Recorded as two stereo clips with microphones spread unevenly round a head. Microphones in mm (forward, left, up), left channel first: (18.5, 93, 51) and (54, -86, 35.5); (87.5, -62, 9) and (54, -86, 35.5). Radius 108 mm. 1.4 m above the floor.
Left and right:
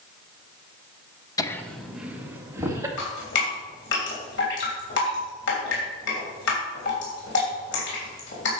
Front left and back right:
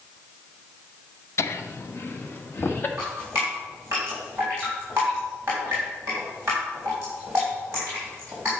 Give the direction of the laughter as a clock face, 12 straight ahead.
11 o'clock.